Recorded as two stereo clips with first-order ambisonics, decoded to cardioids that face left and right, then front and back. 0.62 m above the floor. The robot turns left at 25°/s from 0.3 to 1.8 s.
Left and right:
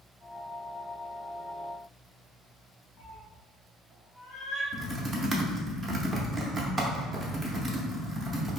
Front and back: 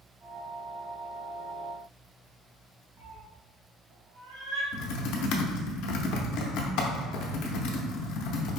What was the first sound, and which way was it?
A cat meowing, 175° right.